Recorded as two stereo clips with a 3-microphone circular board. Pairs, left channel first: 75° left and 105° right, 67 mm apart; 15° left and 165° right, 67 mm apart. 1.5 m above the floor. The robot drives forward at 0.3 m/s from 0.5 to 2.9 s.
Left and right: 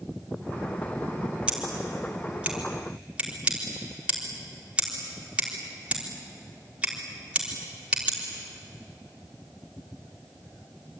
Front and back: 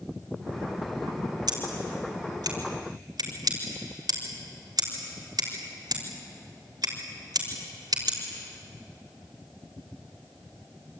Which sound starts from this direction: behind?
Scissors, at 1.5 s.